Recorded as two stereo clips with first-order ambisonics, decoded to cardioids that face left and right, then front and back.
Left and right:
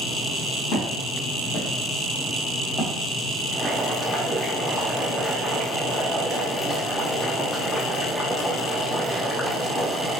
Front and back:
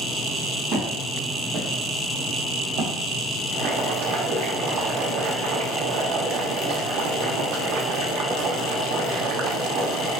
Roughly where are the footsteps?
Behind left.